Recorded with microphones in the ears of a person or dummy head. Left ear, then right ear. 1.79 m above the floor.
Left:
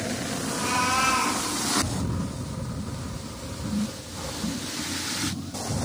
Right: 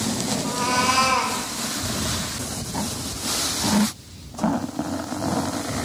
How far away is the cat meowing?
About 3 m.